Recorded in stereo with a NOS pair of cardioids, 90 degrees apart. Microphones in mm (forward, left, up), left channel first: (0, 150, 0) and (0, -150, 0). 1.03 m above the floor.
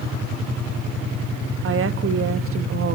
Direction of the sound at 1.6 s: 45° right.